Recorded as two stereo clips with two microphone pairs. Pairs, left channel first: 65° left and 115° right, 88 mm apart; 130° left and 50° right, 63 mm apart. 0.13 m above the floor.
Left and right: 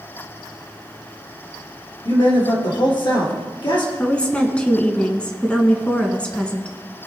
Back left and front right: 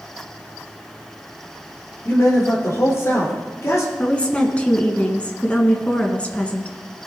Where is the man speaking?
90° left, 3.5 m.